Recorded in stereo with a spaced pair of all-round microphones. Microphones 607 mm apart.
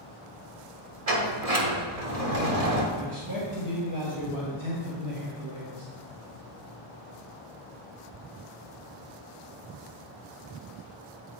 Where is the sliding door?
70° right (ahead or behind), 1.1 m.